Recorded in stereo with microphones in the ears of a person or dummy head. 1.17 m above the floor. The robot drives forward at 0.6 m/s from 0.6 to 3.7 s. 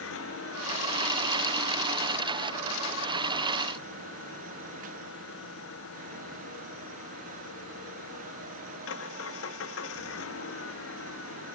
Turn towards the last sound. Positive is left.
turn(degrees=85)